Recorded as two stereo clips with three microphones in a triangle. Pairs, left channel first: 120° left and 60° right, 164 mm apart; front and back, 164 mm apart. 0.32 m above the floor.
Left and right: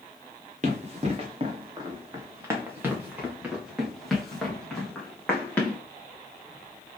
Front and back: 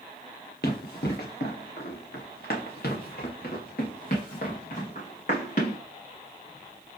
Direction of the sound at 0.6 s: 15° right.